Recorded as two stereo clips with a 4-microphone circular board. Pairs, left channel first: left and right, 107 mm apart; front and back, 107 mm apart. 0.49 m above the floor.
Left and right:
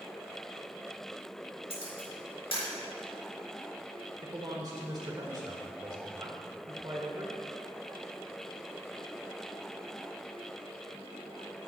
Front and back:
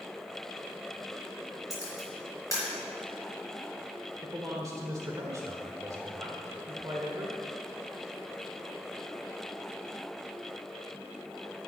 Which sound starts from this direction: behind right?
A man speaking, at 4.2 s.